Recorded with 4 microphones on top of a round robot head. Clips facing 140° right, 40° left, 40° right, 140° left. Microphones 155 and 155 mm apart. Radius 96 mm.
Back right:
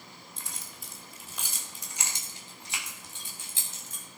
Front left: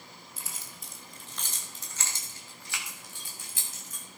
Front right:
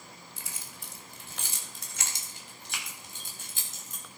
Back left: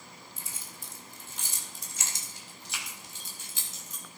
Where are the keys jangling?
45° right, 1.5 m; by 4.0 s 80° right, 3 m.